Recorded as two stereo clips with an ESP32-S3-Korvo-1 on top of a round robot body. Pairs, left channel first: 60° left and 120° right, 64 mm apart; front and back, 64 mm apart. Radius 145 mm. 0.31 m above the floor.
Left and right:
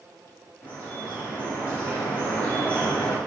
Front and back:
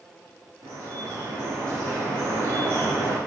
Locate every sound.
0.6 s dripping: 130° left, 3 m